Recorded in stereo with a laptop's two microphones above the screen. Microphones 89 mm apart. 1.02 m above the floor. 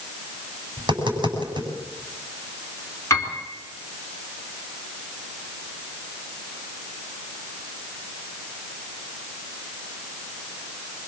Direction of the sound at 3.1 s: 35° left (ahead or behind).